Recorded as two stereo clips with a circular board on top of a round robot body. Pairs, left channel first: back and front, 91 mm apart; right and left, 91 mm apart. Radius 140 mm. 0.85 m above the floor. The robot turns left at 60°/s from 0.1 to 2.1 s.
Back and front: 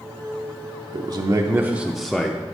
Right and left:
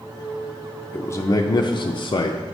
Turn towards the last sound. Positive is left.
turn(degrees=-95)